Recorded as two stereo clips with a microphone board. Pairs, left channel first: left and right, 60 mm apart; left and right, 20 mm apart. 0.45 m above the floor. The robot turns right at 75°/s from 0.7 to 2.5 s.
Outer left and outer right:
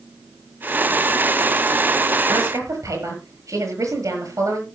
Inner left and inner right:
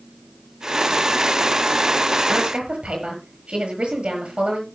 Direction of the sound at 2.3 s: 85° right.